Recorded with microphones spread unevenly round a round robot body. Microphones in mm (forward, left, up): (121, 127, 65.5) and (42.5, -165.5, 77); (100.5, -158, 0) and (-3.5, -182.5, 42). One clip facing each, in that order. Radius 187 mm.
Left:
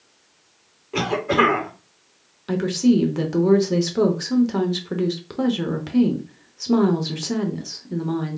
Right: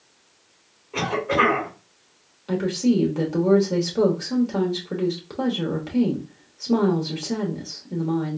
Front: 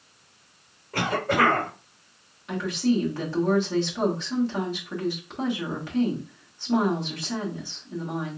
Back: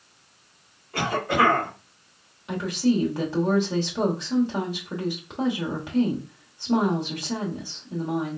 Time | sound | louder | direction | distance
0.9 | a cough | left 3 dB, back 1 dB | 50° left | 2.5 m
2.5 | a woman speaking | left 3 dB, back 1 dB | 100° left | 1.0 m